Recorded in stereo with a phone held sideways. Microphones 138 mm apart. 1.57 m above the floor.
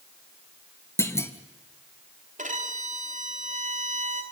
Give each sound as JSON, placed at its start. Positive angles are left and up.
{"t": 1.0, "sound": "a clunk", "side_deg": 20, "distance_m": 1.6}
{"t": 2.4, "sound": "a violin", "side_deg": -70, "distance_m": 2.5}